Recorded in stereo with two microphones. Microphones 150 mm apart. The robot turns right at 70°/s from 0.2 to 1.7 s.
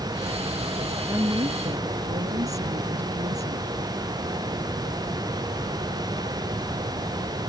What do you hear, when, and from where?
1.1 s a woman speaking: 165° right; by 3.7 s 120° right